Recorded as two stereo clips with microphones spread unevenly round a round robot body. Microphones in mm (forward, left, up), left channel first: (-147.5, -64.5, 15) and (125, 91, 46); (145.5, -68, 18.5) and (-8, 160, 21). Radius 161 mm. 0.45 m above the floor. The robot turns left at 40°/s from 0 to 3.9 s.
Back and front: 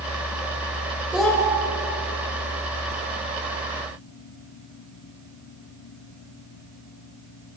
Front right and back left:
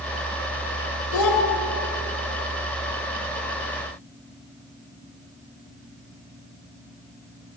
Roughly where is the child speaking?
Ahead right.